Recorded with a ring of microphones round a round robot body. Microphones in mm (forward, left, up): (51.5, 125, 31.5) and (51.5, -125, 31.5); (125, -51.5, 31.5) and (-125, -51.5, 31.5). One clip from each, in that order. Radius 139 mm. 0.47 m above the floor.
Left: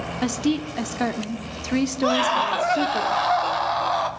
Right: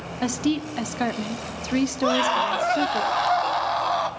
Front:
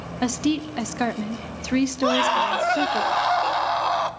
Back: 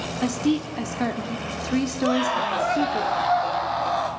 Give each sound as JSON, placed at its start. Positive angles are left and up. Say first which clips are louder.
{"t": 0.2, "sound": "a woman speaking", "louder": "even, front 1 dB", "azimuth_deg": -5, "distance_m": 1.2}
{"t": 2.0, "sound": "a scream", "louder": "left 1 dB, front 3 dB", "azimuth_deg": 0, "distance_m": 1.9}